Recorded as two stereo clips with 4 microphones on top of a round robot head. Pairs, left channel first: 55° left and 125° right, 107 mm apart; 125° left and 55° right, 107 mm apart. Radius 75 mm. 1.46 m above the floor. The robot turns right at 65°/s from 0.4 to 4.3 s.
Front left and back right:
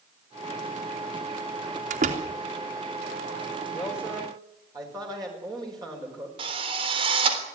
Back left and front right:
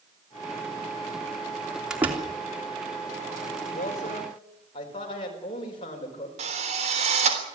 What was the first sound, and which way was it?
A door slam, 140° right.